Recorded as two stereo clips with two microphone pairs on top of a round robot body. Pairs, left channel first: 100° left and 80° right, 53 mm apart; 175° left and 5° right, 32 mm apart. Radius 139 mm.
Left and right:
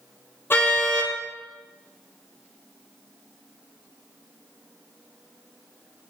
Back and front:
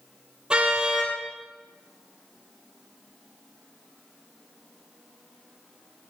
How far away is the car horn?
About 9 m.